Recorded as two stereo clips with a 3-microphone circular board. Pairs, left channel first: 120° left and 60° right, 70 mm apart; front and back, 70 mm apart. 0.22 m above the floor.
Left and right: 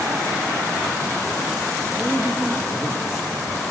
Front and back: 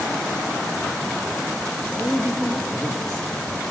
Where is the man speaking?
85° left, 4 m.